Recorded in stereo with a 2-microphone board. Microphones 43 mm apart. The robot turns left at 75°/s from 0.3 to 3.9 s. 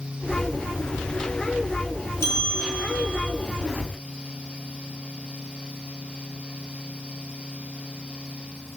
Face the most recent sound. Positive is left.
turn(degrees=-30)